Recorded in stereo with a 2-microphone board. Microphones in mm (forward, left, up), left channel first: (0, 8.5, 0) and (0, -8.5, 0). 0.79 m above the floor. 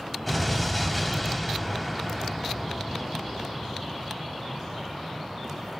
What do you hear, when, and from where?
0.3 s an explosion: 5° left (ahead or behind), 3.5 m